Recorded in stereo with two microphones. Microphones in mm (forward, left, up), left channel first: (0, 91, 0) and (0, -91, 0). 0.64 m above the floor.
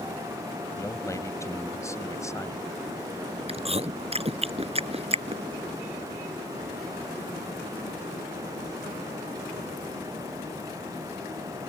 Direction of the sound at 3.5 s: 35° right (ahead or behind).